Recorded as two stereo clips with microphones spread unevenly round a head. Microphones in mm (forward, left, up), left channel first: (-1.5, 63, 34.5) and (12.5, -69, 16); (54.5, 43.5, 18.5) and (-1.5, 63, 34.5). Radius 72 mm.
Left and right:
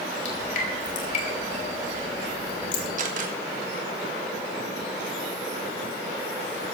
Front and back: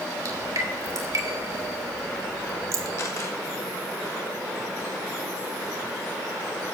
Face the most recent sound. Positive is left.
turn(degrees=-70)